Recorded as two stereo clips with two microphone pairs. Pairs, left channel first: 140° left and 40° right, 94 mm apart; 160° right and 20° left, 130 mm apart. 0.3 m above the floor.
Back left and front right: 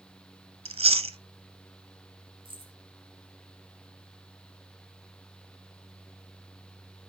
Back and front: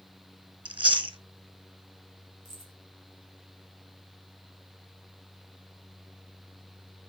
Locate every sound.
0.7 s chewing: 35° right, 1.1 m
2.5 s keys jangling: 5° right, 5 m